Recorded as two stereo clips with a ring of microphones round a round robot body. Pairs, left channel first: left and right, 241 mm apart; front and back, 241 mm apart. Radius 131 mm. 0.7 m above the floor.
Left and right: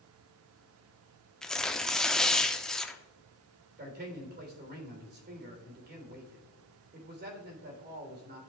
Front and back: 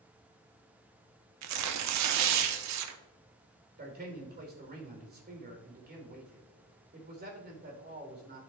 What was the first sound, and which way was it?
Tearing paper, 175° left.